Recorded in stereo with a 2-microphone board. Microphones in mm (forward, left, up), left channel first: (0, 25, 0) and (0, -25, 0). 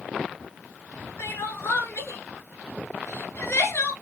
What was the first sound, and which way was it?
Crying, 60° left (ahead or behind).